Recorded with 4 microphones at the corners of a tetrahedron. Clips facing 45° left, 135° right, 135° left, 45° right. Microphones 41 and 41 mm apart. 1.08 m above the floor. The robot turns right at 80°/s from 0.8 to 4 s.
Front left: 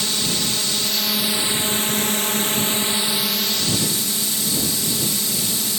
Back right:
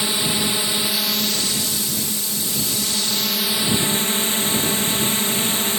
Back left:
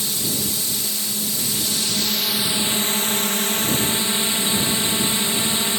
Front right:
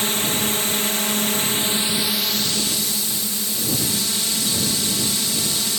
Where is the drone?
70° right; by 5.8 s 175° right.